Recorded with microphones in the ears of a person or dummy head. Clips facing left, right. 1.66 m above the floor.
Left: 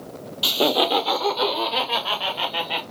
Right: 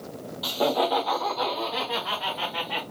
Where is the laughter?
40° left (ahead or behind), 0.6 m.